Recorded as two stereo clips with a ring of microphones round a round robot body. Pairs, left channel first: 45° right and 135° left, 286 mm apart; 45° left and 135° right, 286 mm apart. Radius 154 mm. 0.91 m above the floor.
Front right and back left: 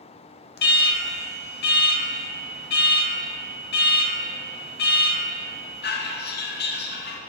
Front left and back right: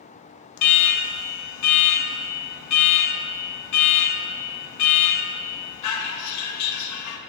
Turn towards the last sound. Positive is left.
turn(degrees=15)